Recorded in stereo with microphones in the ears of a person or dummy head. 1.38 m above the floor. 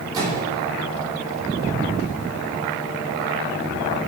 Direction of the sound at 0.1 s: 20° right (ahead or behind).